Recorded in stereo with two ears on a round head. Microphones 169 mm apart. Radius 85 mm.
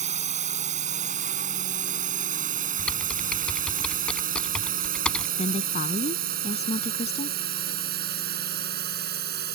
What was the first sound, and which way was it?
A drone, 40° right (ahead or behind).